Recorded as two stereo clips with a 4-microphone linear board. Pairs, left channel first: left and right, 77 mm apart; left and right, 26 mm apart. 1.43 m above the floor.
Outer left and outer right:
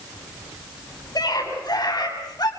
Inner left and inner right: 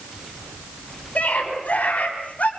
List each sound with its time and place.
1.1 s a scream: 55° left (ahead or behind), 9 m